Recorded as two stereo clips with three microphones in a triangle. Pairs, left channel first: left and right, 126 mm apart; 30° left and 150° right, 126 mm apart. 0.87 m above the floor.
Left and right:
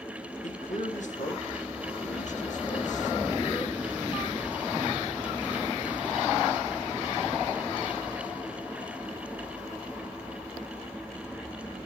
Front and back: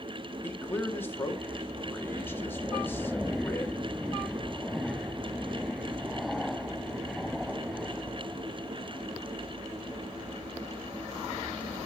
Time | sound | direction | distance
0.4 | a man speaking | 105° left | 1.8 m